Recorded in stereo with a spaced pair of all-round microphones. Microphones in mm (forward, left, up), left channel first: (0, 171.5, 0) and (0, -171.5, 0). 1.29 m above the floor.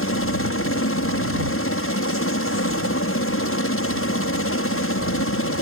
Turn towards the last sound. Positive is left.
turn(degrees=40)  # may be behind; listen again after turning